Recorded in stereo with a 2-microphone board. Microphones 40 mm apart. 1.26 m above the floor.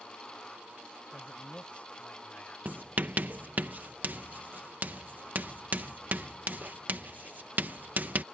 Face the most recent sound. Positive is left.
turn(degrees=-50)  # may be behind; listen again after turning